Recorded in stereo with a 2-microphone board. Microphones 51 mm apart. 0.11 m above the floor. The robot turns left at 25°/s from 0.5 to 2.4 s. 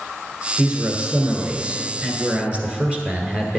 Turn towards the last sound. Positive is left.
turn(degrees=-140)